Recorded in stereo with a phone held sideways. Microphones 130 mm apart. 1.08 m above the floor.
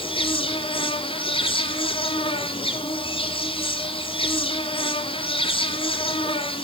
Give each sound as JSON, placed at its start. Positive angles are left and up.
{"t": 0.0, "sound": "an insect", "side_deg": 40, "distance_m": 1.6}